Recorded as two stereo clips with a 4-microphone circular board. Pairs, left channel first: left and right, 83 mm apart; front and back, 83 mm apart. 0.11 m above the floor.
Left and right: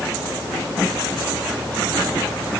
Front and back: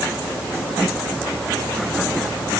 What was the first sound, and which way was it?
Only background noise.